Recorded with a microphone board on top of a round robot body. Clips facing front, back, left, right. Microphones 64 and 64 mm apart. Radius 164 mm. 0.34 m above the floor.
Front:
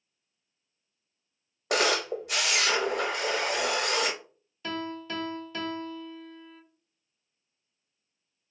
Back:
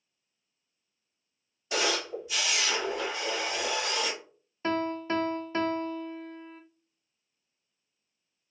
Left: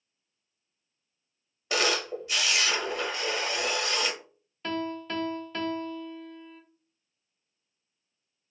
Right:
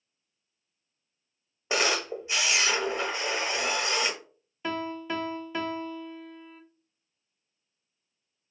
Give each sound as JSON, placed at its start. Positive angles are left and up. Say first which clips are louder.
{"t": 1.7, "sound": "a camera shutter", "louder": "front 4 dB, even", "azimuth_deg": -25, "distance_m": 0.7}
{"t": 4.6, "sound": "a piano", "louder": "back 5 dB, even", "azimuth_deg": -160, "distance_m": 0.6}